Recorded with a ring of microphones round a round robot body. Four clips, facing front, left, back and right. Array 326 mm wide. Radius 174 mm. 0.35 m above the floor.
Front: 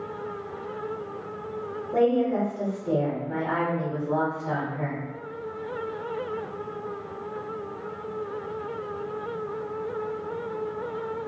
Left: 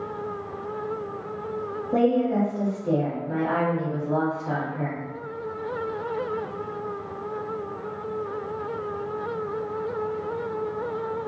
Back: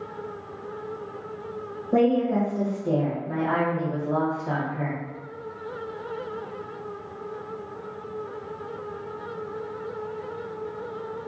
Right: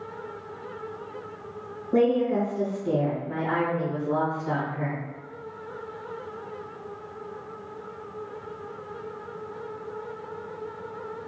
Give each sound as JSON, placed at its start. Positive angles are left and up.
{"t": 1.9, "sound": "a woman speaking", "azimuth_deg": 155, "distance_m": 1.6}